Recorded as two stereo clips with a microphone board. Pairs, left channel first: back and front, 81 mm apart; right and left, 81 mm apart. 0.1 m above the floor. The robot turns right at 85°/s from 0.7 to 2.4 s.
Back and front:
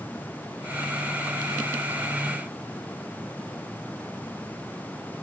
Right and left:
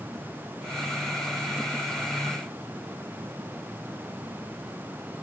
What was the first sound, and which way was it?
Only background noise.